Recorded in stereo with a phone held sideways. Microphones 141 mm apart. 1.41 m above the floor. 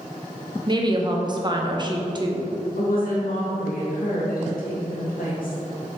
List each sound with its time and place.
0.7 s a woman speaking: 30° right (ahead or behind), 0.9 m
2.8 s a woman speaking: 80° left, 1.9 m